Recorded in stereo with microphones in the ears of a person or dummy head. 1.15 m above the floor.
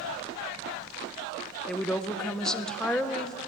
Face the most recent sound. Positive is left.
turn(degrees=5)  # may be behind; listen again after turning